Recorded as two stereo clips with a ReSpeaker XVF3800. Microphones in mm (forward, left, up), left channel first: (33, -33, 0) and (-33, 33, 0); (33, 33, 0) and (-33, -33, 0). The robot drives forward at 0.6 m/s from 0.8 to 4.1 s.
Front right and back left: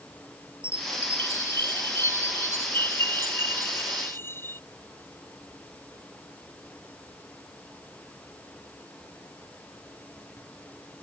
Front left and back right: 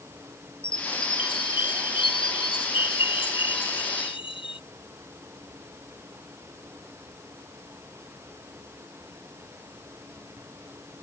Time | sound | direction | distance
0.6 | a chime | 15° left | ?